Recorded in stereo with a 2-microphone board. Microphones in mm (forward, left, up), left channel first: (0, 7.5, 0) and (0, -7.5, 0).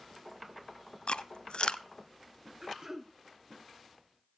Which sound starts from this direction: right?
Throat clearing, at 2.6 s.